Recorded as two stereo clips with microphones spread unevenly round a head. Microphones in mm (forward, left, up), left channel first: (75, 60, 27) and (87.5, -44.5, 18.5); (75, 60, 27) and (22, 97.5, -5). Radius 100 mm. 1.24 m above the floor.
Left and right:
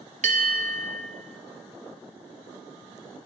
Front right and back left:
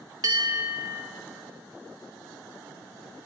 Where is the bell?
140° right, 0.7 m.